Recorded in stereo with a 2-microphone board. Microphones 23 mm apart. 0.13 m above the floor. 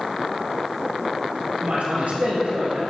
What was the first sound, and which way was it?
A man speaking, 65° right (ahead or behind).